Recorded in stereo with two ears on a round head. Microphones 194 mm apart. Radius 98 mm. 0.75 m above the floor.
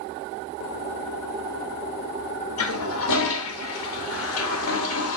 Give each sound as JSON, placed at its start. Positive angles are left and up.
{"t": 2.6, "sound": "a toilet flushing", "side_deg": 70, "distance_m": 0.8}